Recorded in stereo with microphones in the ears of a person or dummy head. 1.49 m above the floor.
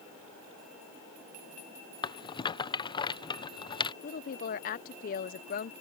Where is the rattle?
25° left (ahead or behind).